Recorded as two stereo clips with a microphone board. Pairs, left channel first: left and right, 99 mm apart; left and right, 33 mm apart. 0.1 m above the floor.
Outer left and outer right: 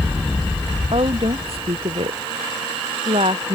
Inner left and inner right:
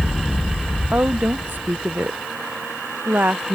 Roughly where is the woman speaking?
Right.